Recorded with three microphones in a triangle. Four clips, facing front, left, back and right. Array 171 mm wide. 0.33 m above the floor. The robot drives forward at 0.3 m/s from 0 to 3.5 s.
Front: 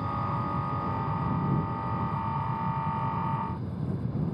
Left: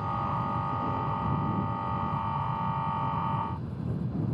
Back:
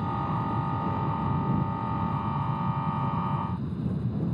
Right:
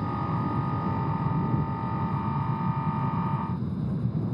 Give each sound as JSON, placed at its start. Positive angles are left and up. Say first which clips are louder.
{"t": 0.0, "sound": "an aircraft", "louder": "right 1 dB, back 1 dB", "azimuth_deg": -115}